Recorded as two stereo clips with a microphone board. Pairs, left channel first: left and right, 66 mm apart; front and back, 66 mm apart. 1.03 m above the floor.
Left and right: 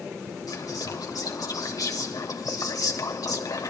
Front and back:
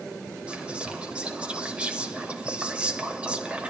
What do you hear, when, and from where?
0.5 s whispering: 110° left, 2.5 m